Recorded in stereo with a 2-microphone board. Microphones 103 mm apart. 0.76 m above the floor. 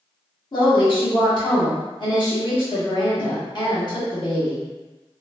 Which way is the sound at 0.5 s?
45° left (ahead or behind).